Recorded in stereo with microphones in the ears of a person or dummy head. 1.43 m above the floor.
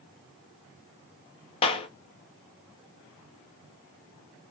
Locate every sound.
1.6 s a clap: 30° left (ahead or behind), 0.8 m